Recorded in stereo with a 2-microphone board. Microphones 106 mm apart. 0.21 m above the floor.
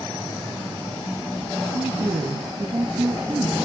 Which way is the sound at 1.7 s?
40° right (ahead or behind).